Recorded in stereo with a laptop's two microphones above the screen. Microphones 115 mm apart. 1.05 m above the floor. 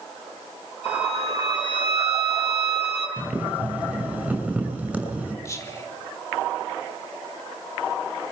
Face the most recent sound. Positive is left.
turn(degrees=30)  # may be behind; listen again after turning